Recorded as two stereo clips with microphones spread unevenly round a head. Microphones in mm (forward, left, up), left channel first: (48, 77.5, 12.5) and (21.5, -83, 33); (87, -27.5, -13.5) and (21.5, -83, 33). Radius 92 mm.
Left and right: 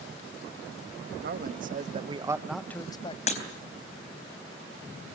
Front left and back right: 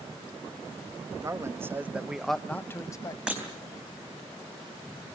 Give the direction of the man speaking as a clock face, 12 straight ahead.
2 o'clock.